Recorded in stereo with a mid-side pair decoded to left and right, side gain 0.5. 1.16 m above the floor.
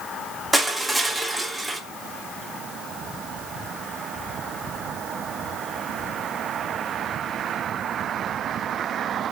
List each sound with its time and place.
0.5 s crushing: 5° right, 0.8 m